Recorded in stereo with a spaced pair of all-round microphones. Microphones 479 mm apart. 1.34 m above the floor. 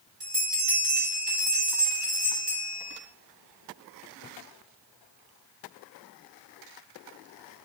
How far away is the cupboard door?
I don't hear a cupboard door.